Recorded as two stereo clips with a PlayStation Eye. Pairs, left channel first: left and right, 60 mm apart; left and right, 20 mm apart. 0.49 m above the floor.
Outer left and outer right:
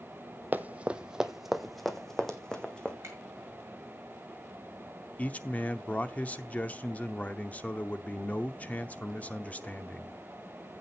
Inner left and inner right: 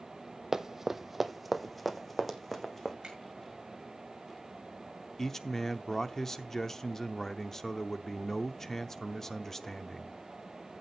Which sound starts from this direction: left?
A man speaking, at 5.2 s.